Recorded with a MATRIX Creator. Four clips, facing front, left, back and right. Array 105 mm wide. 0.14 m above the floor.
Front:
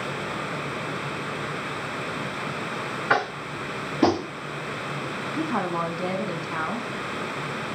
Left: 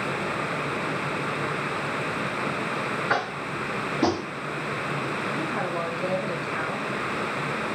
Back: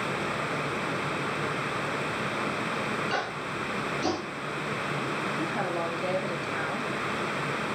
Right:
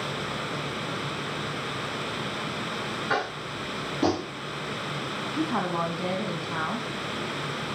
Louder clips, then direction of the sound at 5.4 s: Right 6 dB, front 7 dB; 30° right.